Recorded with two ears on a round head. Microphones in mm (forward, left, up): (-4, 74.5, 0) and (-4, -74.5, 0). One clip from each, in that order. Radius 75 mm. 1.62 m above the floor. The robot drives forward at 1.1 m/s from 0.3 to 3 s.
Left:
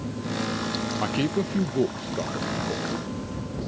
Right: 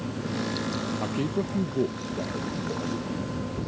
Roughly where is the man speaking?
Left.